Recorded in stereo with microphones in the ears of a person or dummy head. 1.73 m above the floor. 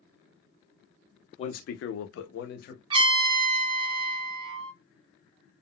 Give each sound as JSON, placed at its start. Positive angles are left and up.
{"t": 1.4, "sound": "a man speaking", "side_deg": 35, "distance_m": 0.6}
{"t": 2.9, "sound": "a trumpet", "side_deg": -30, "distance_m": 0.7}